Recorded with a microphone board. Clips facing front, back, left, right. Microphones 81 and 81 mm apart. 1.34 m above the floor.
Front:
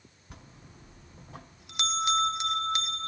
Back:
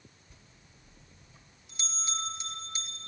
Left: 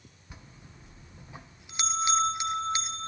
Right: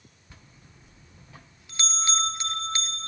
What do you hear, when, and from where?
0.3 s a bell: 15° left, 1.0 m